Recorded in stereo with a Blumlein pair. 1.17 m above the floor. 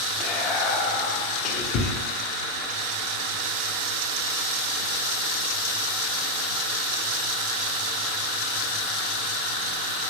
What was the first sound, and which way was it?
Whispering, 35° left.